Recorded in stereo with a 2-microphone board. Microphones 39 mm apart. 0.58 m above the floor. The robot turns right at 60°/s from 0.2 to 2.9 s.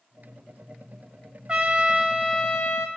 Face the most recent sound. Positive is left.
turn(degrees=60)